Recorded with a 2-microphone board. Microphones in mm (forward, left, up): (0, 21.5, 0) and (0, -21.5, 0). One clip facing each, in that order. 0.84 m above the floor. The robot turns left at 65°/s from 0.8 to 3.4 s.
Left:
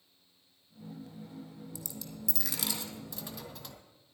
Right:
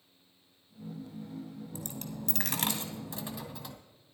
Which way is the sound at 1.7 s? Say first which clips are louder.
Right 5 dB; 65° right.